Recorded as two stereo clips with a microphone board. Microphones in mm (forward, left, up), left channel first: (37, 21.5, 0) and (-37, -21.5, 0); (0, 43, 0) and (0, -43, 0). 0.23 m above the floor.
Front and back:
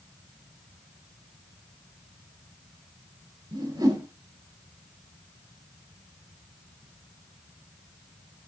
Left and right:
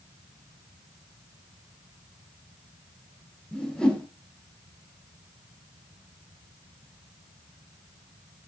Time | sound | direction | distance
3.5 | a whoosh | 175° left | 4.5 m